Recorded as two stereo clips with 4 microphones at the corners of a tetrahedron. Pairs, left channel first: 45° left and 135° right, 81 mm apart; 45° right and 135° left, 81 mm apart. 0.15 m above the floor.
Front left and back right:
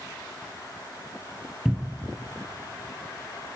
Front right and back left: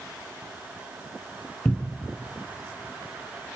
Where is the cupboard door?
80° right, 1.1 m.